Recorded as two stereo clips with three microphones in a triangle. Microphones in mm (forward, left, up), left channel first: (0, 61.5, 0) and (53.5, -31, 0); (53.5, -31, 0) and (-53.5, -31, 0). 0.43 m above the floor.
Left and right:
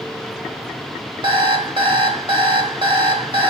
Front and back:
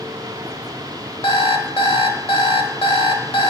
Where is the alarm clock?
25° right, 1.2 m.